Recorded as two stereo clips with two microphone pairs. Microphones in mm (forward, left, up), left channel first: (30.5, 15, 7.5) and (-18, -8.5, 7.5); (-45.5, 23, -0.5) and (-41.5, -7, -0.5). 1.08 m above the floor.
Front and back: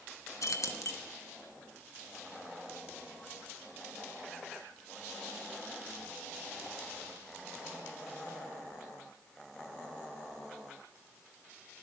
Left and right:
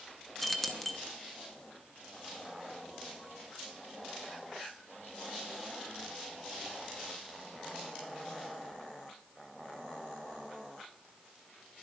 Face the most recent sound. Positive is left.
turn(degrees=15)